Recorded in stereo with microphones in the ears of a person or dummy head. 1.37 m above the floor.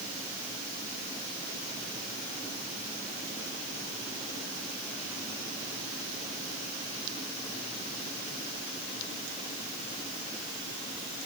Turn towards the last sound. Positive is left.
No sound to turn to.